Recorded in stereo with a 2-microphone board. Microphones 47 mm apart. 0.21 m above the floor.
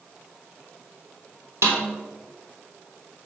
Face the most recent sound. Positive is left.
turn(degrees=-70)  # may be behind; listen again after turning